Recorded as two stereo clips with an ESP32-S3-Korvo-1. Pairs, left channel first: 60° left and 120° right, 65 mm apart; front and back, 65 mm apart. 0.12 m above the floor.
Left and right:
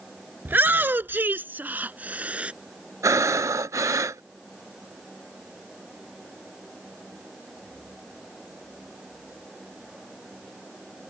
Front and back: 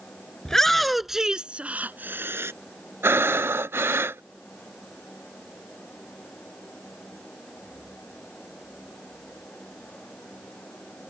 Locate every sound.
0.5 s a shout: 75° right; by 2.5 s straight behind
3.0 s breathing: 135° right